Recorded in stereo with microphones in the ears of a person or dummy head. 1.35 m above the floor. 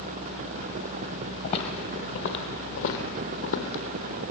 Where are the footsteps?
40° left (ahead or behind), 1.9 m; by 3.8 s 65° left (ahead or behind), 3 m.